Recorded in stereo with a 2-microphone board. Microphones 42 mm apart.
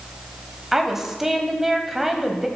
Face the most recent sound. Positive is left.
turn(degrees=-10)  # may be behind; listen again after turning